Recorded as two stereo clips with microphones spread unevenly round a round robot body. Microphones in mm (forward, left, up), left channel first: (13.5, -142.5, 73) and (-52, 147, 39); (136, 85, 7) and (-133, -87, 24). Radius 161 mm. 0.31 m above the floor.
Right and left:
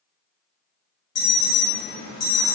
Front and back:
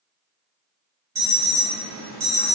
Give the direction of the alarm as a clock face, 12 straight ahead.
3 o'clock.